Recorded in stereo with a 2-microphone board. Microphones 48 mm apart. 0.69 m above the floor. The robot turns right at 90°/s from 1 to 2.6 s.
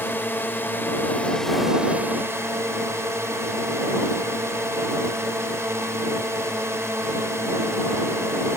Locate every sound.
0.0 s a drone: 130° left; by 8.6 s 85° right